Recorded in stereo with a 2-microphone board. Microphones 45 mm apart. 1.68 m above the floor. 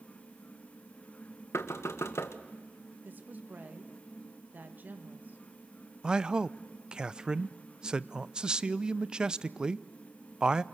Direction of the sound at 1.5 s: 80° left.